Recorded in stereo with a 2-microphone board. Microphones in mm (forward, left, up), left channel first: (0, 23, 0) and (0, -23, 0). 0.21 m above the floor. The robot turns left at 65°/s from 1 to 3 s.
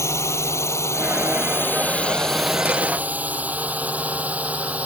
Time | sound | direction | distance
0.0 | a drone | 75° left (ahead or behind) | ?